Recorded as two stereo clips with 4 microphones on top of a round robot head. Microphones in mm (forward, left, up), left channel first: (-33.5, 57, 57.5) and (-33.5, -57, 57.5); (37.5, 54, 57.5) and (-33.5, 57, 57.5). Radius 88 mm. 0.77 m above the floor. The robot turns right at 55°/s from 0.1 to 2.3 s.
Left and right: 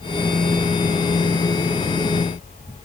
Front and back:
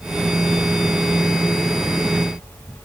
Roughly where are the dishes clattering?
I don't hear dishes clattering.